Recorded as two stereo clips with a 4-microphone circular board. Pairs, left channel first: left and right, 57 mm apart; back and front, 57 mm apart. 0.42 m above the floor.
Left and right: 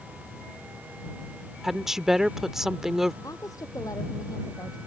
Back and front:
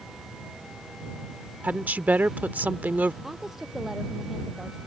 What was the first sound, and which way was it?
A woman speaking, 15° right.